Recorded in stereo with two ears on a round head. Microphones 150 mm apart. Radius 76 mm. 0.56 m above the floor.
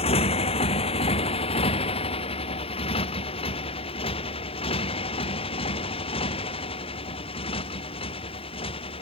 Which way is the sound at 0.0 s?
40° left (ahead or behind).